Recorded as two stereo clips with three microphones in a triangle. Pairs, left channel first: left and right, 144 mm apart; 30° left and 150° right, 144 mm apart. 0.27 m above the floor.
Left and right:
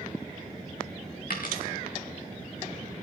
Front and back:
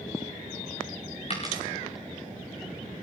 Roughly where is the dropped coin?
Left.